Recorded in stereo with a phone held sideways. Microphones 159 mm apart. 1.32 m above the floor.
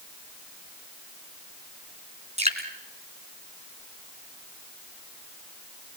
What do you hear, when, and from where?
2.4 s dripping: 45° right (ahead or behind), 3 m